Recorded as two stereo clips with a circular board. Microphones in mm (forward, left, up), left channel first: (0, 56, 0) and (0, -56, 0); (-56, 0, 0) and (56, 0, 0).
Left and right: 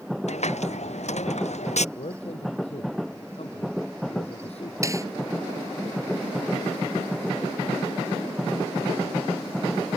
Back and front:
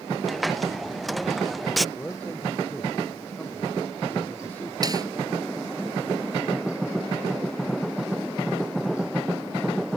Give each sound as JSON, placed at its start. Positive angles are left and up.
{"t": 0.3, "sound": "a hiss", "azimuth_deg": 90}
{"t": 1.9, "sound": "a man speaking", "azimuth_deg": 105}
{"t": 4.8, "sound": "a snare drum", "azimuth_deg": -40}